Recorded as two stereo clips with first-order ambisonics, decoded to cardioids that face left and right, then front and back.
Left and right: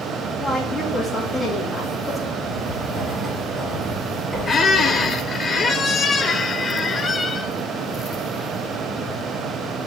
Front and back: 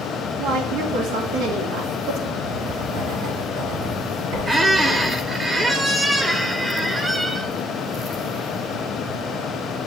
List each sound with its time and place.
0.4 s a woman speaking: 170° left, 2 m
2.4 s writing: 175° right, 4 m
4.5 s a squeak: 115° left, 0.7 m